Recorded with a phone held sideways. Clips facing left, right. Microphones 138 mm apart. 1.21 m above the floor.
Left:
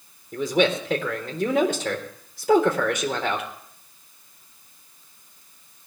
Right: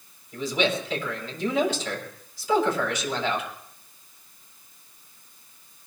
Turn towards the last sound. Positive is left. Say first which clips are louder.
# left 4 dB
turn(degrees=55)  # may be behind; listen again after turning